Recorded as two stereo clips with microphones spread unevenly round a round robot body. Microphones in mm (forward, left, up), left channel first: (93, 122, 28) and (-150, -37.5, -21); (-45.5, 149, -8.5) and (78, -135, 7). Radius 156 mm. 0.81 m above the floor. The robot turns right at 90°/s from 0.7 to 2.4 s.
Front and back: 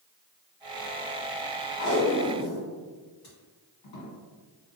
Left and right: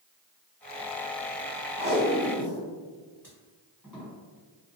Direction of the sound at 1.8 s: 30° right.